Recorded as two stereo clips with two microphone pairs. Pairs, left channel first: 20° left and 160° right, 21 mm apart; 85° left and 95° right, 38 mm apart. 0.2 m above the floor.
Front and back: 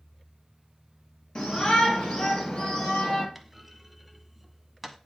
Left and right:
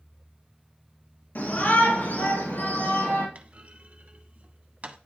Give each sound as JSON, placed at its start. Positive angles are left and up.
{"t": 1.4, "sound": "a shout", "azimuth_deg": 50, "distance_m": 3.5}
{"t": 3.4, "sound": "a clunk", "azimuth_deg": -85, "distance_m": 0.6}